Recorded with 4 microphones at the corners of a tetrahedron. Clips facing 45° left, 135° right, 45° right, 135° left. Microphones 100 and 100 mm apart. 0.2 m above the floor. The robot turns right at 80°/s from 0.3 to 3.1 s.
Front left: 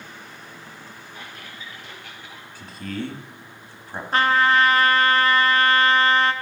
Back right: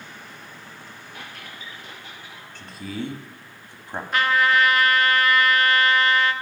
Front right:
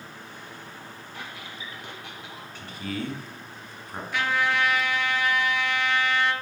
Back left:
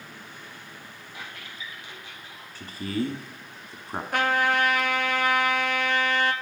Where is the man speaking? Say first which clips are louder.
Front left 1 dB, back left 4 dB; 120° left, 1.3 m; by 4.0 s 165° left, 1.3 m.